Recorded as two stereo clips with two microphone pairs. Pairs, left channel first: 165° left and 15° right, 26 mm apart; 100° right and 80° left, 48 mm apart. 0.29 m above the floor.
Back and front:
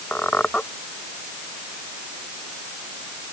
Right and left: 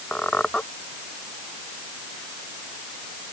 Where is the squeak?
165° right.